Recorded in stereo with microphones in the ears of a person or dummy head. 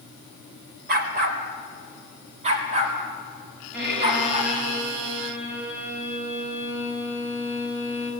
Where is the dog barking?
40° right (ahead or behind), 1.6 m; by 4.5 s 35° right (ahead or behind), 5.5 m.